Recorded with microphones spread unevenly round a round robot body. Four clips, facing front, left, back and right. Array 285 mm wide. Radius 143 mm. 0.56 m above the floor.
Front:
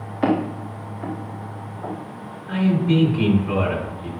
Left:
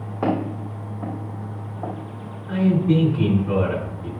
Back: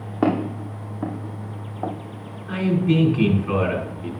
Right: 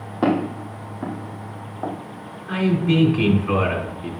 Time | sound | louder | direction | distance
0.2 | footsteps | right 3 dB, front 1 dB | 160° right | 3.5 m
2.5 | a man speaking | left 1 dB, front 1 dB | 120° right | 5 m